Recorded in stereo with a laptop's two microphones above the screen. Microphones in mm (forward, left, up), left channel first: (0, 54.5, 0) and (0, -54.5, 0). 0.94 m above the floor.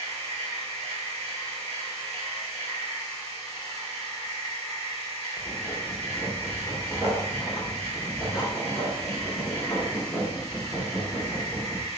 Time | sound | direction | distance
0.0 | a machine running | 65° right (ahead or behind) | 1.4 m
5.4 | writing | 10° right (ahead or behind) | 1.3 m